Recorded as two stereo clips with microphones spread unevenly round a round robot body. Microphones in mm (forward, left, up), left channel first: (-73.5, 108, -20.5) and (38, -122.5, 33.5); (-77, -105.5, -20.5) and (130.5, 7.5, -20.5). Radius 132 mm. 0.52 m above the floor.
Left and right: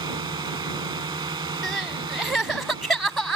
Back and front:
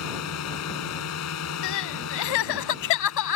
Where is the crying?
155° right.